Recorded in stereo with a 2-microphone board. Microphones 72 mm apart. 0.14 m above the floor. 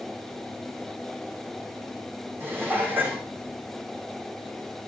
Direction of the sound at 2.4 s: 30° right (ahead or behind).